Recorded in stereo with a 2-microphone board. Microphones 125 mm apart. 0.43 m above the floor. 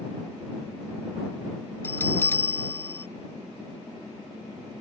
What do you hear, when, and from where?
1.8 s a bell: 20° left (ahead or behind)